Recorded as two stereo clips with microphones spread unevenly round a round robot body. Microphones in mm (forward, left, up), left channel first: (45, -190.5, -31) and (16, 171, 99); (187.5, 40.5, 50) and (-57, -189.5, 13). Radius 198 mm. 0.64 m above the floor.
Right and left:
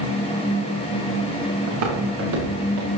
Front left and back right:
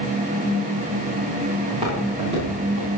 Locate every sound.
1.7 s footsteps: 145° left, 5.5 m